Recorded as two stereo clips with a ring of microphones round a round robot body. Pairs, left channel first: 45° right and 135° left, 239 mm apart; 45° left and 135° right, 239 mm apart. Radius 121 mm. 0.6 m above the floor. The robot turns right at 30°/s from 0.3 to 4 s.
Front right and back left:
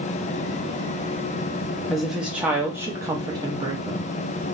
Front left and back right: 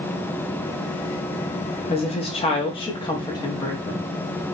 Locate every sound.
1.9 s a woman speaking: 45° left, 0.6 m; by 4.1 s 105° left, 0.6 m